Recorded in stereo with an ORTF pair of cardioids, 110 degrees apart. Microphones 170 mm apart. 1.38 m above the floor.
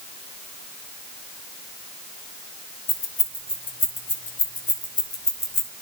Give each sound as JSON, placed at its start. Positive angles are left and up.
{"t": 2.9, "sound": "keys jangling", "azimuth_deg": 45, "distance_m": 6.0}